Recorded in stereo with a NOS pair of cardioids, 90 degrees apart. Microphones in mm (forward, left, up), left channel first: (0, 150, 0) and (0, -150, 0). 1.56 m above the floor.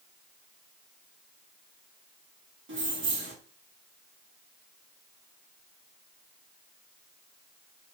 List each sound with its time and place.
2.7 s keys jangling: 40° right, 1.5 m